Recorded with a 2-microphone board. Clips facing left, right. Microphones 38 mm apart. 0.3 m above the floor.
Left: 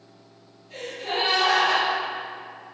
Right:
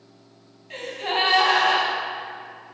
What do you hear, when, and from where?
0.7 s a gasp: 60° right (ahead or behind), 2 m